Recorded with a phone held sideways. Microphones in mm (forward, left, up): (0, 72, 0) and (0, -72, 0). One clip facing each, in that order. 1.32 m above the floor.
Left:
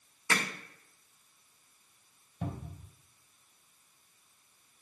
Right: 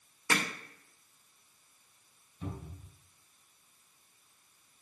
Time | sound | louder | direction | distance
0.3 | hammering | right 1 dB | 15° right (ahead or behind) | 2 m
2.4 | a cupboard door | left 2 dB | 65° left (ahead or behind) | 2.5 m